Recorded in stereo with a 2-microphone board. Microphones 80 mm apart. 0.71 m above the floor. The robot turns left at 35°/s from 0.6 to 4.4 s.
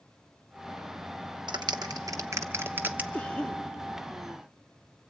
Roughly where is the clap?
Right.